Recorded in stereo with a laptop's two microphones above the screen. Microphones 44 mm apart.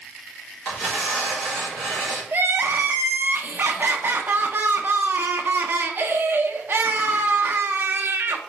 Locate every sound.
0.7 s tearing paper: 5° left (ahead or behind), 2 m
2.3 s crying: 50° right (ahead or behind), 0.5 m